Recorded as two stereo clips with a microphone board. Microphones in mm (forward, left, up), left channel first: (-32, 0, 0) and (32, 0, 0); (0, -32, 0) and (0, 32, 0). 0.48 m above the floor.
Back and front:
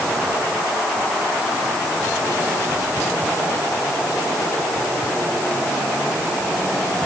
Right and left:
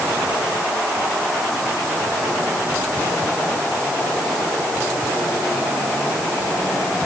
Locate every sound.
Only background noise.